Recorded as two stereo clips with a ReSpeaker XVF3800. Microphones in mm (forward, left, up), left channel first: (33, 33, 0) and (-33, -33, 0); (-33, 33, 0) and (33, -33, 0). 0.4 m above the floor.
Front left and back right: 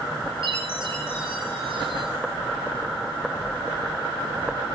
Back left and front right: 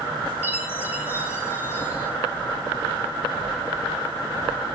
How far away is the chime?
About 5 m.